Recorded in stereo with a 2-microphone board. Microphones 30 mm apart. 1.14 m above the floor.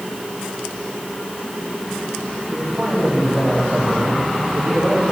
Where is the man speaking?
25° right (ahead or behind), 3 m.